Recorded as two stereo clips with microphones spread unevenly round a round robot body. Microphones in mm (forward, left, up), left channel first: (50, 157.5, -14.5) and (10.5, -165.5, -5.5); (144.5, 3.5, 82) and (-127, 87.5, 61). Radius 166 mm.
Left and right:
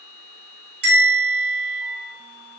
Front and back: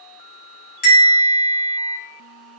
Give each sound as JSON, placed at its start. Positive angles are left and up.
{"t": 0.8, "sound": "a bell", "azimuth_deg": -55, "distance_m": 1.3}